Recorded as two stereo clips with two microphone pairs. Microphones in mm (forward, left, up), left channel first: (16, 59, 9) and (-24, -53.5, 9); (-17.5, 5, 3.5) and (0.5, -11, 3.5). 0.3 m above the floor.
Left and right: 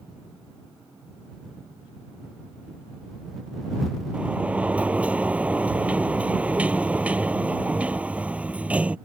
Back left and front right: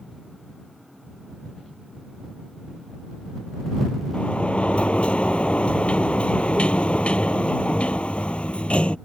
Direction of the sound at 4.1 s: 170° left.